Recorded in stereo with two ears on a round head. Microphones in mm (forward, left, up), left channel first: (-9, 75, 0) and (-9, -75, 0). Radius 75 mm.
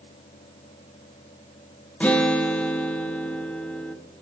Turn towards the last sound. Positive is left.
turn(degrees=10)  # may be behind; listen again after turning